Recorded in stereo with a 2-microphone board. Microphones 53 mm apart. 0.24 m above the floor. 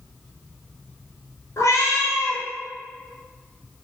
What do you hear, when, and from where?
1.6 s a cat meowing: 85° left, 0.6 m